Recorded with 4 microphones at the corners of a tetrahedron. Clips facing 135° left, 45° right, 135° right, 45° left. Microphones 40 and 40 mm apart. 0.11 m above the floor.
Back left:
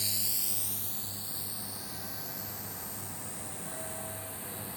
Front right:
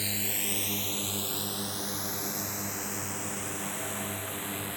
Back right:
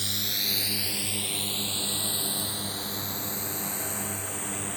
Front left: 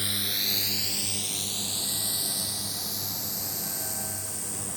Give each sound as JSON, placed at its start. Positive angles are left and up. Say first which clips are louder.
{"t": 0.0, "sound": "a drone", "louder": "front right 5 dB, front left 1 dB", "azimuth_deg": -15}